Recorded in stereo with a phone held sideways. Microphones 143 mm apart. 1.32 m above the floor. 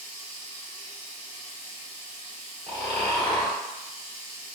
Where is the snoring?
25° left (ahead or behind), 1.0 m.